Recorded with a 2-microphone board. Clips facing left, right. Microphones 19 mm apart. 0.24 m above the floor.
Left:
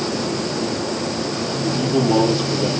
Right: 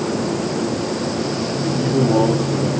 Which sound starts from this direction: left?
A man speaking, at 1.6 s.